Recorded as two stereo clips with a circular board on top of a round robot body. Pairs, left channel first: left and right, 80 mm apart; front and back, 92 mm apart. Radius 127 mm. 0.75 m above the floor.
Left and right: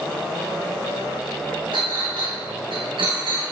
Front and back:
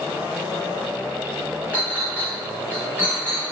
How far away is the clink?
About 1.9 m.